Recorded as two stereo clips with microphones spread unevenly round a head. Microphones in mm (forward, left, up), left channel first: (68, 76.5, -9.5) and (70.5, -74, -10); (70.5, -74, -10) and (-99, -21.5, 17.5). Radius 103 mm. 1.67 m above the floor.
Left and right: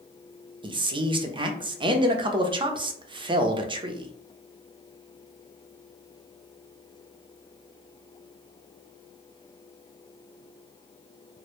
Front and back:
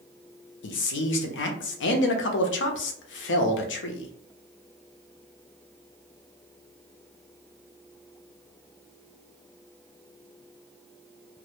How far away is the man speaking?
About 0.6 m.